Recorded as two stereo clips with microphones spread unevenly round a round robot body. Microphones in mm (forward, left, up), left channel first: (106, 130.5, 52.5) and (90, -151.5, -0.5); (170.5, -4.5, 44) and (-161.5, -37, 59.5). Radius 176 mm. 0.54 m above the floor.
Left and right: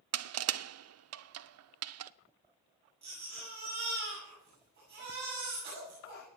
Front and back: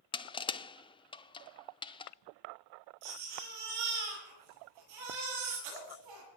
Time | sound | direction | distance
0.1 | crushing | 70° right | 0.6 m
3.0 | a baby crying | 155° right | 9 m